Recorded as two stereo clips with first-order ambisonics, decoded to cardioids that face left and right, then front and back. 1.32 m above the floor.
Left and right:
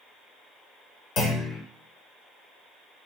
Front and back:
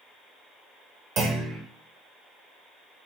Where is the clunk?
135° left, 1.2 m.